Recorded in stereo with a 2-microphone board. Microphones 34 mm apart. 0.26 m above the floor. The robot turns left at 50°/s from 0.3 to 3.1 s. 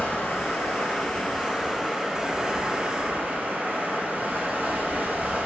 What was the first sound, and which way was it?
Running water, 80° left.